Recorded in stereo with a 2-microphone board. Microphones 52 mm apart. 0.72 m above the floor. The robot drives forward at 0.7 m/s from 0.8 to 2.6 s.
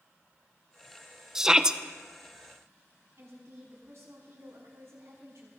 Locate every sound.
1.4 s a shout: 10° right (ahead or behind), 0.7 m; by 1.8 s 15° right (ahead or behind), 0.5 m
3.2 s a woman speaking: 65° right (ahead or behind), 6 m